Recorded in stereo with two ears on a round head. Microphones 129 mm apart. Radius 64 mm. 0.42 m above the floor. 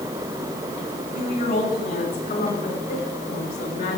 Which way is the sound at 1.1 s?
65° left (ahead or behind).